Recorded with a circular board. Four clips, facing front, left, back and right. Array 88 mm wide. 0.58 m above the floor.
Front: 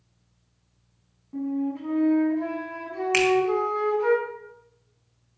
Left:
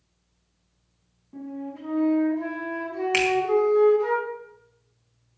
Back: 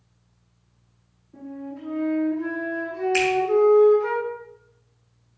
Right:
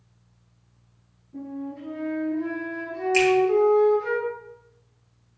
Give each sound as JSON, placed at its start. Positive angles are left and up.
{"t": 1.3, "sound": "a flute", "azimuth_deg": 20, "distance_m": 6.0}
{"t": 3.1, "sound": "a finger snap", "azimuth_deg": 40, "distance_m": 3.5}